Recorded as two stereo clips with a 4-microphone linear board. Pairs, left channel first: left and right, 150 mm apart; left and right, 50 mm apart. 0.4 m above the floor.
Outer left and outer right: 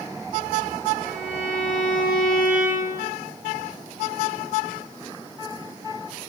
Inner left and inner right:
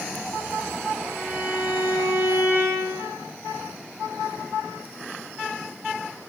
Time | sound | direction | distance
1.1 | a violin | 65° right (ahead or behind) | 3 m